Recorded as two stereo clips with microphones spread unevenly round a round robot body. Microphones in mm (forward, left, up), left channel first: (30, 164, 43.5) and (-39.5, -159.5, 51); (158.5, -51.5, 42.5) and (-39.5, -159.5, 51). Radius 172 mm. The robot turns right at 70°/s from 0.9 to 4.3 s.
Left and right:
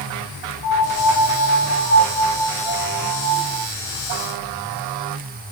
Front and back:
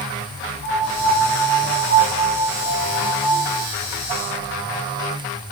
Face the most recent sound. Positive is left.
turn(degrees=30)